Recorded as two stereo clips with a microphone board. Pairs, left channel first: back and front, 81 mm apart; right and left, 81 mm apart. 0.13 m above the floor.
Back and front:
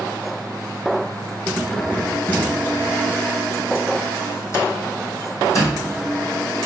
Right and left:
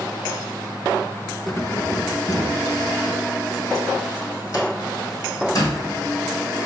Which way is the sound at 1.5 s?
80° right.